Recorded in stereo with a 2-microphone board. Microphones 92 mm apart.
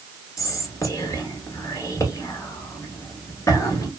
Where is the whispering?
35° left (ahead or behind), 1.3 m.